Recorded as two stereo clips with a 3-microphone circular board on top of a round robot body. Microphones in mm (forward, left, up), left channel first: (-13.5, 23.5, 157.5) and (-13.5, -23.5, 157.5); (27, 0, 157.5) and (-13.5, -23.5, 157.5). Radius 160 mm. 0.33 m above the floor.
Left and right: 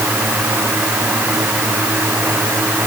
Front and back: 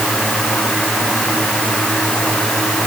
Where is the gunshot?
I don't hear a gunshot.